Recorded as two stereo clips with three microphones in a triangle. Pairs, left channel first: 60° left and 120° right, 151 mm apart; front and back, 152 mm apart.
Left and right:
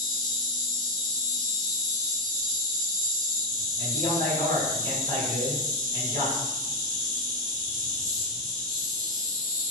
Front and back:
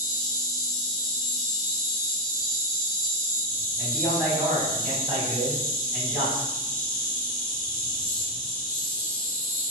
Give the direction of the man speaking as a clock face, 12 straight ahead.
9 o'clock.